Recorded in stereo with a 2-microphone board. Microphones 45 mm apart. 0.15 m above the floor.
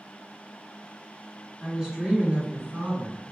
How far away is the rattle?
I don't hear a rattle.